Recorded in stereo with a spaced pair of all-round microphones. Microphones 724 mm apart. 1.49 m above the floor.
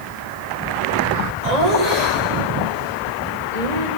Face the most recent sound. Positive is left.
turn(degrees=-65)  # may be behind; listen again after turning